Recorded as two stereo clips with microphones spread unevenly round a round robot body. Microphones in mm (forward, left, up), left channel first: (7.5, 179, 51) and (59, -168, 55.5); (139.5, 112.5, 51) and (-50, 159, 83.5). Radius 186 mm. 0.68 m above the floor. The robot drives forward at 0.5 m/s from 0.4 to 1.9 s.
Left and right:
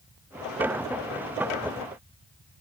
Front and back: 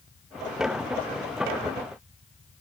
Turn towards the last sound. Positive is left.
No sound to turn to.